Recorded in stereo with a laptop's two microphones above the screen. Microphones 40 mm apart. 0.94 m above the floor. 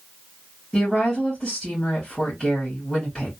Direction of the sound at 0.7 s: 5° left (ahead or behind).